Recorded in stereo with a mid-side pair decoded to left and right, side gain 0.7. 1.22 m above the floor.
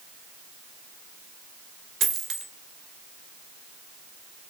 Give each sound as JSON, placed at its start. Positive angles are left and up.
{"t": 2.0, "sound": "a dropped coin", "azimuth_deg": -40, "distance_m": 2.0}